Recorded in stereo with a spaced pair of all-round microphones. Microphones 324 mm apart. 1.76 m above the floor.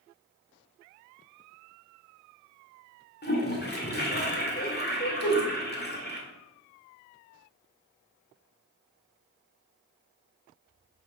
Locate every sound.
3.2 s a toilet flushing: 30° left (ahead or behind), 2 m
5.2 s a whoosh: 50° left (ahead or behind), 3.5 m